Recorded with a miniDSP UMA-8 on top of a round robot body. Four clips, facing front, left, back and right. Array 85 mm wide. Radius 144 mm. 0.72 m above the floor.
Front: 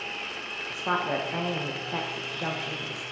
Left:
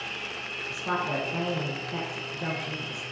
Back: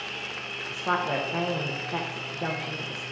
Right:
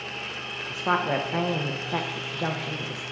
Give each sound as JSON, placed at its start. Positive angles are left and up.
{"t": 0.7, "sound": "a woman speaking", "azimuth_deg": -95, "distance_m": 0.8}